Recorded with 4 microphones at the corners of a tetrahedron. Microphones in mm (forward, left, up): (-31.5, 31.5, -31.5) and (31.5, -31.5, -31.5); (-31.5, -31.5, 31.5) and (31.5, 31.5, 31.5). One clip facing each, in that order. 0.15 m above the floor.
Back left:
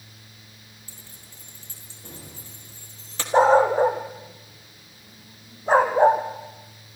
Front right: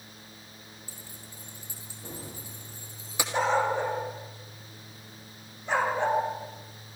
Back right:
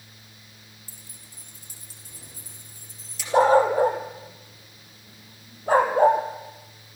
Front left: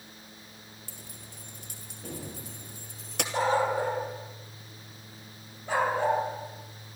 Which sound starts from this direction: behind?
A dog barking, at 3.3 s.